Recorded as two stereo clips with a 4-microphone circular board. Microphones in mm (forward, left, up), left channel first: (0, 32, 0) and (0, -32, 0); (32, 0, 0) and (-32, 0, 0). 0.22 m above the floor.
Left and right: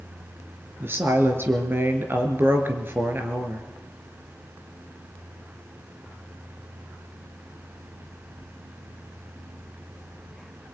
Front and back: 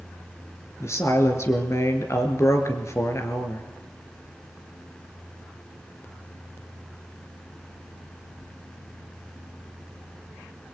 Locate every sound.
0.8 s a woman speaking: 35° right, 3.5 m